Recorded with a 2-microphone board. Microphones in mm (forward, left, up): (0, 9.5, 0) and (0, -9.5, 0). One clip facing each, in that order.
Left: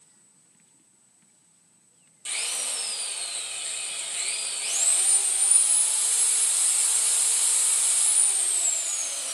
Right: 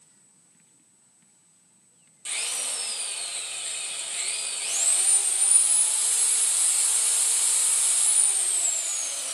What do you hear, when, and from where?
2.2 s a drill: 5° left (ahead or behind), 0.7 m